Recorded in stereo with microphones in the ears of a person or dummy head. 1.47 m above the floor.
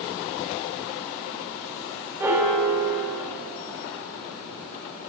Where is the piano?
10° right (ahead or behind), 1.1 m.